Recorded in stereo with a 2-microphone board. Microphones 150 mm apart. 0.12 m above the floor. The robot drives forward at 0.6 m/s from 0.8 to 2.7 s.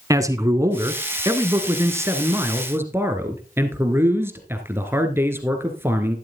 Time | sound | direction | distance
0.1 | a man speaking | 20° right (ahead or behind) | 1.3 m